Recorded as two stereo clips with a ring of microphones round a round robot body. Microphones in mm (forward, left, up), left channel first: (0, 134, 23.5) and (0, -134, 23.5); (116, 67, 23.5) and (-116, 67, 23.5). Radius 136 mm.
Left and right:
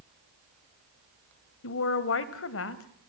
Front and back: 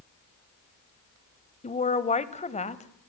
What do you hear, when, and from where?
1.6 s a woman speaking: 55° left, 1.9 m